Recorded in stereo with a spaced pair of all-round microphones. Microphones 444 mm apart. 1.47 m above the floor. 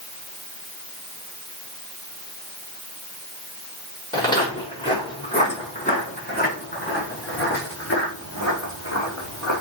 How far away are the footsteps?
About 5.5 m.